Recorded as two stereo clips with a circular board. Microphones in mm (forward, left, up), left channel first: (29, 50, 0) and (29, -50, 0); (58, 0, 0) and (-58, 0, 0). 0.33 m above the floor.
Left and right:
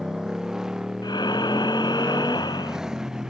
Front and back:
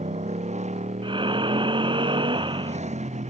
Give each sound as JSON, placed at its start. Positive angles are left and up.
{"t": 0.0, "sound": "a motorcycle", "azimuth_deg": -175}
{"t": 1.0, "sound": "breathing", "azimuth_deg": 135}